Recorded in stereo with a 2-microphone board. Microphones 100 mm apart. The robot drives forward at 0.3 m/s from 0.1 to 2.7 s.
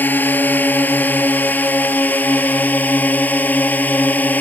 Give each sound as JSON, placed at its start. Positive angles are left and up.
{"t": 0.0, "sound": "a drone", "side_deg": 20}